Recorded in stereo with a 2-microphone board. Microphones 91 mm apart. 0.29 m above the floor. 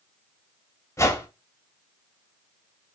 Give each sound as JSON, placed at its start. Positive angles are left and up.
{"t": 1.0, "sound": "a whoosh", "side_deg": 30, "distance_m": 0.9}